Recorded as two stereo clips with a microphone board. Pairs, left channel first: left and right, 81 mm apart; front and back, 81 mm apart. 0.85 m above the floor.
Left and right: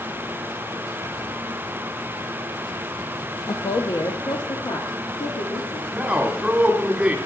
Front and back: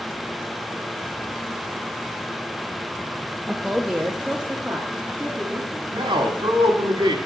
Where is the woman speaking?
95° left, 0.7 m; by 5.8 s 105° left, 1.8 m.